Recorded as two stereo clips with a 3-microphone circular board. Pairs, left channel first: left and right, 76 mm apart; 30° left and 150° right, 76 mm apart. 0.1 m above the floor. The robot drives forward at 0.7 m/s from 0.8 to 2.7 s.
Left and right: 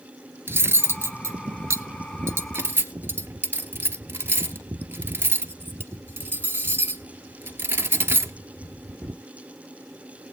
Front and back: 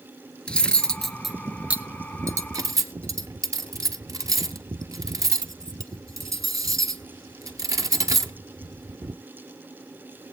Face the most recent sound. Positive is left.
turn(degrees=-140)